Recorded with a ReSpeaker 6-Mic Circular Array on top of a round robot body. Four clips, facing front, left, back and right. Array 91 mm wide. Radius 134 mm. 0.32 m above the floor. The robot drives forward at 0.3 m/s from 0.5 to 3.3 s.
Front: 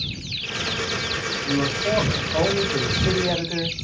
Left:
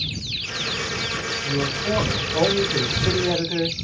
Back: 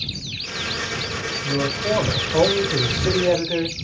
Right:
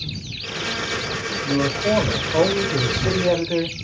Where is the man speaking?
115° right, 1.9 m; by 3.8 s 130° right, 2 m.